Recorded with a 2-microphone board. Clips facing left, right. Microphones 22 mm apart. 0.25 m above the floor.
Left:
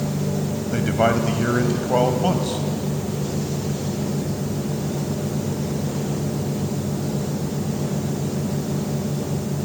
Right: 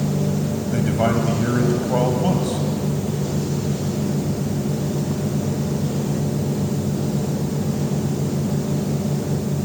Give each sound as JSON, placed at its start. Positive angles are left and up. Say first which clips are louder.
{"t": 0.7, "sound": "a man speaking", "louder": "left 1 dB", "side_deg": 15, "distance_m": 1.0}